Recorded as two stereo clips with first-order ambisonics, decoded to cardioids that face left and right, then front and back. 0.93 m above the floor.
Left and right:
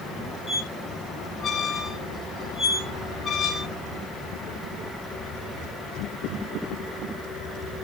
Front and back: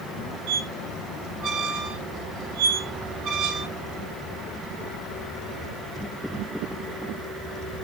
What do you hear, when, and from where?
0.5 s a squeak: 160° left, 1.9 m